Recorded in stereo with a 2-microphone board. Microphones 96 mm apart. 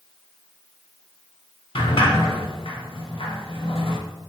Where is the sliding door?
65° left (ahead or behind), 0.5 m.